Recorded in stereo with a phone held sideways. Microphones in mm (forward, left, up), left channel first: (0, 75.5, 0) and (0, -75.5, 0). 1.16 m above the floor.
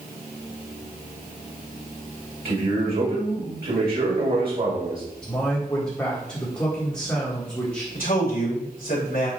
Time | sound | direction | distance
2.5 | a man speaking | 70° right (ahead or behind) | 2.5 m
5.2 | a man speaking | 15° left (ahead or behind) | 1.7 m
7.9 | a man speaking | 65° left (ahead or behind) | 3 m